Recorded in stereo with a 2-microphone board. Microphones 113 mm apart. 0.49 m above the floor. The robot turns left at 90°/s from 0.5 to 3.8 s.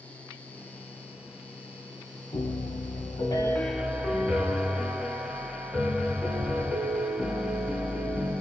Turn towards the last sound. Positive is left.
turn(degrees=-10)